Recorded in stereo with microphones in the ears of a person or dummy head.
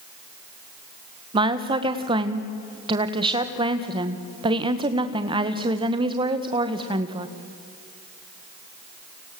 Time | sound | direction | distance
1.3 | a woman speaking | 30° right (ahead or behind) | 1.7 m